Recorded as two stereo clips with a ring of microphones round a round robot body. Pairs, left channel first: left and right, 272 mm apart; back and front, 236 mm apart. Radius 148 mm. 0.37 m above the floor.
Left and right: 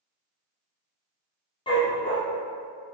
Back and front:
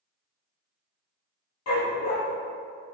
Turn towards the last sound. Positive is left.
turn(degrees=165)